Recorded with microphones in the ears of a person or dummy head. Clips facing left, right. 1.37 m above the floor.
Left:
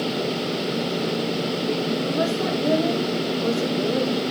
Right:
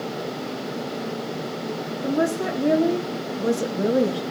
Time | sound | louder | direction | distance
2.0 | a woman speaking | even | 25° right (ahead or behind) | 4 m